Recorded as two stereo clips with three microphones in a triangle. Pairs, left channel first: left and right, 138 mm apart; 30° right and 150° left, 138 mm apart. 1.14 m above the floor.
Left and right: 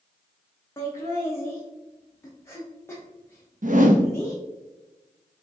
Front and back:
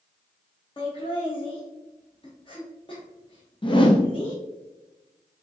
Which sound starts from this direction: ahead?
Laughter, at 0.8 s.